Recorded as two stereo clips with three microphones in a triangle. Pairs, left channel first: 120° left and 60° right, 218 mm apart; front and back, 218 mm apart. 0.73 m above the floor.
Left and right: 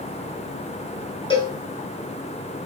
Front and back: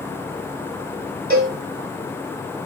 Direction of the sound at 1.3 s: Straight behind.